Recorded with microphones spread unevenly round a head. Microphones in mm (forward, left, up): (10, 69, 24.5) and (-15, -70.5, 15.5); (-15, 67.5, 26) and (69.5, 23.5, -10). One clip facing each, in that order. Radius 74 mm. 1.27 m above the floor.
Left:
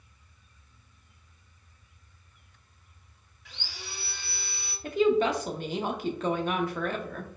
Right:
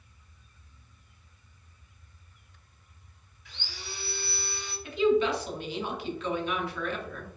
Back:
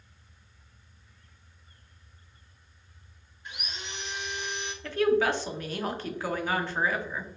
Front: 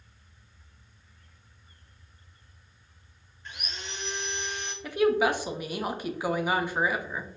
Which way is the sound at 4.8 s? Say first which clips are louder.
Left 1 dB, front 1 dB; 35° left.